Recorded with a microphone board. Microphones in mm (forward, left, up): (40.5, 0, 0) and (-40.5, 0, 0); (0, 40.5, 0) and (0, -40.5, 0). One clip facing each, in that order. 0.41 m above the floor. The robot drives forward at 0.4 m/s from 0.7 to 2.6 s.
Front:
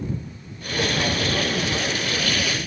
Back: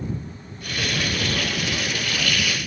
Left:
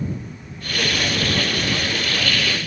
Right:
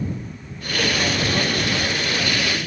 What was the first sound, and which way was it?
Only background noise.